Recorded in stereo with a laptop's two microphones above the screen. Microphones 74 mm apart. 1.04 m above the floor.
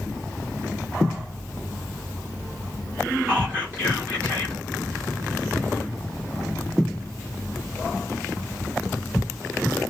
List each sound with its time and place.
3.3 s whispering: 30° right (ahead or behind), 6 m